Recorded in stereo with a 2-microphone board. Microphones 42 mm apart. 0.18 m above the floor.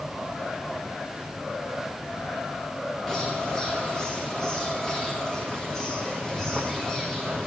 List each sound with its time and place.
3.1 s a bird: 5° left (ahead or behind), 4 m